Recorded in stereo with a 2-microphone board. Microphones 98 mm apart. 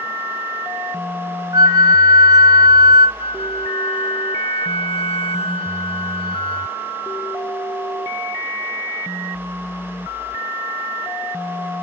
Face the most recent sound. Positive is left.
turn(degrees=80)